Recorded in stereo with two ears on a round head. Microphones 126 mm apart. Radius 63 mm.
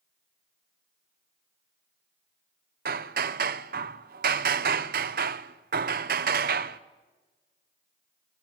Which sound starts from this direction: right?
Hammering, at 2.9 s.